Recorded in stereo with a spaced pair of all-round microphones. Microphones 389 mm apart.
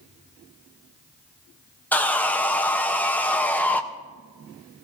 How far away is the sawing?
About 0.6 m.